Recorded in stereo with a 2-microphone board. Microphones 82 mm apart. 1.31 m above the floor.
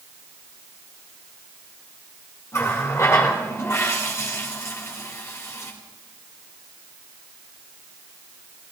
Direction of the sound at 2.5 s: 35° left (ahead or behind).